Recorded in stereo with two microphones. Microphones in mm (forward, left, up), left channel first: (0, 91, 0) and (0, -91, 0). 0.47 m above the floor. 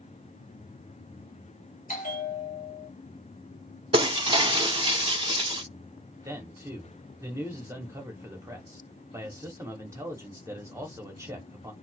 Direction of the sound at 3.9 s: 30° right (ahead or behind).